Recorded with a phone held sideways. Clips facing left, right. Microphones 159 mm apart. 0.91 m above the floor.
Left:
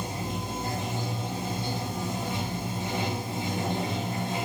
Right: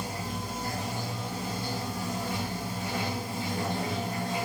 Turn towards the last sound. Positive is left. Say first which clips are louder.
# left 2 dB
turn(degrees=20)  # may be behind; listen again after turning